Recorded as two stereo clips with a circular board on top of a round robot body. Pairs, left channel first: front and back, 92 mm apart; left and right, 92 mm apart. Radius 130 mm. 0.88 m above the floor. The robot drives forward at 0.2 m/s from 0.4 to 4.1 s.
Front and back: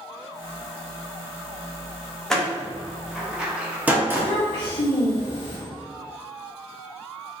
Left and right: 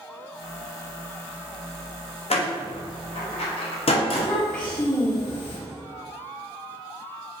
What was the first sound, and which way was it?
A door slam, 85° left.